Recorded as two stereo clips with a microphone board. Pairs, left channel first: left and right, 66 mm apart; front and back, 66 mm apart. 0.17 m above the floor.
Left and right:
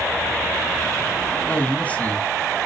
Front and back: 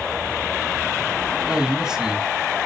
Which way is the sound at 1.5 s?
115° left.